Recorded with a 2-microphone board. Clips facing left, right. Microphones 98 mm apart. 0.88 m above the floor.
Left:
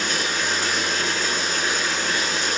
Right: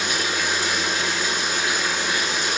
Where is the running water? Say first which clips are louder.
Even; 10° right (ahead or behind), 2.5 m.